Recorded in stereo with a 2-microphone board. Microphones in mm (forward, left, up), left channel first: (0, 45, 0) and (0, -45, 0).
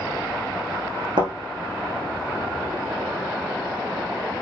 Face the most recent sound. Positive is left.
turn(degrees=-70)  # may be behind; listen again after turning